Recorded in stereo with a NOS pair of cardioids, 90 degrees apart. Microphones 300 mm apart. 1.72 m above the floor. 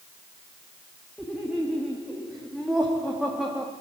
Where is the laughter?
Straight ahead, 3 m.